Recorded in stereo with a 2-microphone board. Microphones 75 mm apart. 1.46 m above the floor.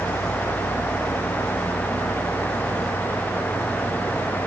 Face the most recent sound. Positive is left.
No sound to turn to.